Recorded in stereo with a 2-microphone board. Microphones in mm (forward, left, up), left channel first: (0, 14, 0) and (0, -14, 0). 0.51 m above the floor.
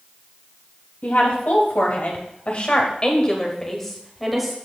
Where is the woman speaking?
70° left (ahead or behind), 3 m; by 4.5 s centre (ahead or behind), 2 m.